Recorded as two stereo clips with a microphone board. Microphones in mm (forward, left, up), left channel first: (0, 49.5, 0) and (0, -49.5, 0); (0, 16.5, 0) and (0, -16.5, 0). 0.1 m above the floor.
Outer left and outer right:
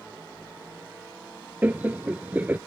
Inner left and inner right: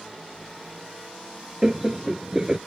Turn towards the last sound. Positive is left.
turn(degrees=-20)  # may be behind; listen again after turning